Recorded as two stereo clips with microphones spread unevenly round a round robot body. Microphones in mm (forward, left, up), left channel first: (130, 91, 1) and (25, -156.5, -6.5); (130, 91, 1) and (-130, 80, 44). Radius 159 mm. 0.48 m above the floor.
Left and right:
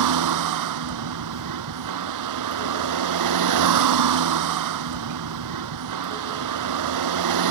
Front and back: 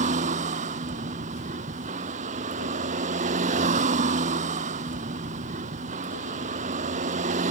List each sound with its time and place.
0.0 s a vehicle: 110° right